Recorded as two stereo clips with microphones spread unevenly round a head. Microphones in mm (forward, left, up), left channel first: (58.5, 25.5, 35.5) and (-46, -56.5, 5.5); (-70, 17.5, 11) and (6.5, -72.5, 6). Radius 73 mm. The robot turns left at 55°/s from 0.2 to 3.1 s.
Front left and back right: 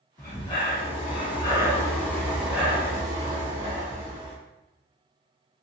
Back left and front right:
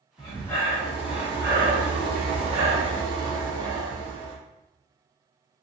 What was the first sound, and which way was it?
Breathing, 80° left.